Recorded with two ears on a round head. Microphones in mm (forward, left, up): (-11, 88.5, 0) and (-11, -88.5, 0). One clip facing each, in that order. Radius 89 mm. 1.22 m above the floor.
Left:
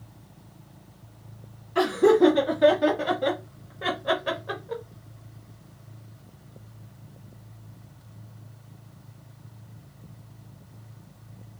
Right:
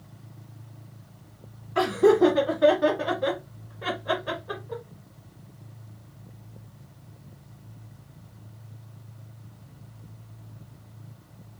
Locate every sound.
1.8 s laughter: 30° left (ahead or behind), 2 m; by 4.8 s 90° left, 1.1 m